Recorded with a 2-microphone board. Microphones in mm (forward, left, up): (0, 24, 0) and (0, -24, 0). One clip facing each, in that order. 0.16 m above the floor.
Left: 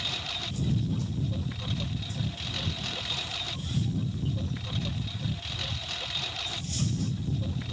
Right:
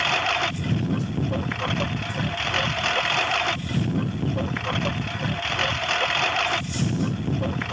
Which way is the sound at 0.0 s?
60° right (ahead or behind).